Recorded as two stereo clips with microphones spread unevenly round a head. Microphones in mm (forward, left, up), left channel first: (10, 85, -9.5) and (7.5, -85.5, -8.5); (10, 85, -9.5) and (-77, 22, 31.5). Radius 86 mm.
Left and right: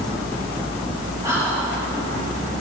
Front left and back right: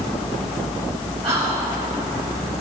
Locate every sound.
1.2 s whispering: 160° right, 5 m